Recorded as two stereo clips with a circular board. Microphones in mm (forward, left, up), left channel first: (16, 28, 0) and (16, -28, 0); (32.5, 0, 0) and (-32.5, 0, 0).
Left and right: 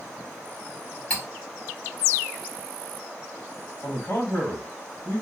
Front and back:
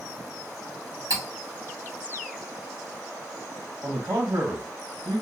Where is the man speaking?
140° left, 1.6 m.